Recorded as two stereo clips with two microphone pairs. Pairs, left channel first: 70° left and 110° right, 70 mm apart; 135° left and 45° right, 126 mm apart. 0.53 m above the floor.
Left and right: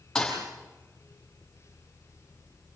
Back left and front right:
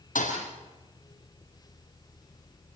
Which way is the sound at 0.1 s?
150° left.